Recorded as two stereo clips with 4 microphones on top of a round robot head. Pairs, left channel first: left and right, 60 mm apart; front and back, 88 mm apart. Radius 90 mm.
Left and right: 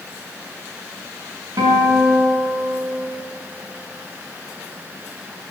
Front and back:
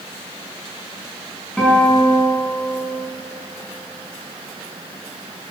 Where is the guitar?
85° right, 6 m.